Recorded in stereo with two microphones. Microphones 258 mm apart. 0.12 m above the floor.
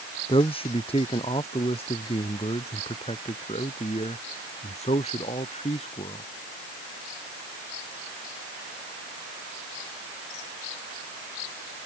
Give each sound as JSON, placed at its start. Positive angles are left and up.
{"t": 0.3, "sound": "a man speaking", "side_deg": 20}